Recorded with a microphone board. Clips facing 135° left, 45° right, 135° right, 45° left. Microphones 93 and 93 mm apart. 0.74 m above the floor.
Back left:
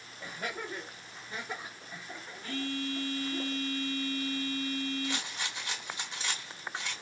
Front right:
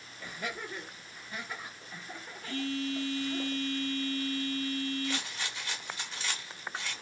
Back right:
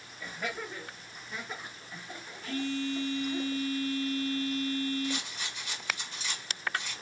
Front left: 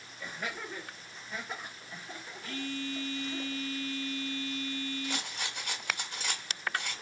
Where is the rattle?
65° left, 0.8 m.